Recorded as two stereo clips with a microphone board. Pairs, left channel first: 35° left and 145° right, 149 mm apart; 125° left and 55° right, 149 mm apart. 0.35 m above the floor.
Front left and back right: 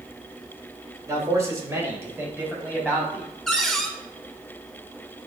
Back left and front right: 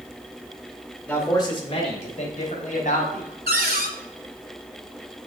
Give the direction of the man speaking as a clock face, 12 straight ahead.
6 o'clock.